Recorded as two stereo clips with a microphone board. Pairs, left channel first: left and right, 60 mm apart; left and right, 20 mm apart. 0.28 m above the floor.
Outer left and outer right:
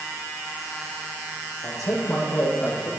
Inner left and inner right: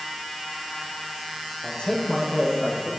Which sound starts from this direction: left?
A man speaking, at 1.6 s.